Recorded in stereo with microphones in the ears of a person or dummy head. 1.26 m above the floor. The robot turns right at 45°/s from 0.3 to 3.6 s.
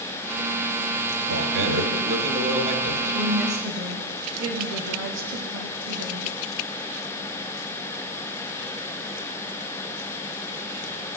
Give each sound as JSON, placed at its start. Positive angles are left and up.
{"t": 1.3, "sound": "a man speaking", "azimuth_deg": -100, "distance_m": 1.3}
{"t": 3.1, "sound": "a woman speaking", "side_deg": -80, "distance_m": 1.5}